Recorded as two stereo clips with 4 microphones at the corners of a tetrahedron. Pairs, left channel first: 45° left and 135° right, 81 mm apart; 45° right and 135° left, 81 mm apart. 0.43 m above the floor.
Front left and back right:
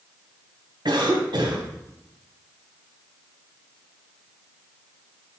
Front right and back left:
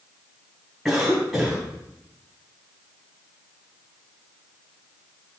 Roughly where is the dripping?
I don't hear dripping.